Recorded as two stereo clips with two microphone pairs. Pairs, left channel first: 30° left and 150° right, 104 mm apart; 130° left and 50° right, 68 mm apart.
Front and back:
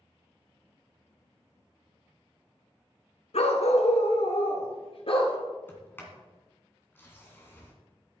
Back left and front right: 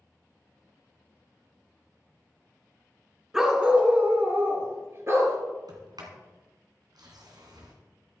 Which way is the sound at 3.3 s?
35° left.